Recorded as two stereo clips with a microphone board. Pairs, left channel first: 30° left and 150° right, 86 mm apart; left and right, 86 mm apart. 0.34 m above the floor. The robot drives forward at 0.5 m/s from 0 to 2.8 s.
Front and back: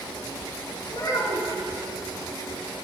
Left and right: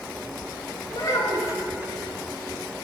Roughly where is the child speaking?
Ahead left.